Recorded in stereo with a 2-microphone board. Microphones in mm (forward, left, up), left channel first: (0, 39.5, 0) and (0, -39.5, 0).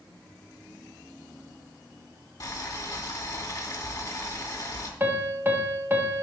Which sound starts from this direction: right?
A piano, at 5.0 s.